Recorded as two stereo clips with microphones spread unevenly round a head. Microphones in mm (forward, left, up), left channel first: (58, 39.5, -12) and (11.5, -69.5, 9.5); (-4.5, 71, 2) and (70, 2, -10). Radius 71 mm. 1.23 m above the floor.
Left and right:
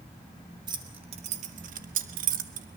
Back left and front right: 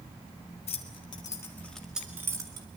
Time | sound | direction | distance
0.7 | keys jangling | 175° right | 2.0 m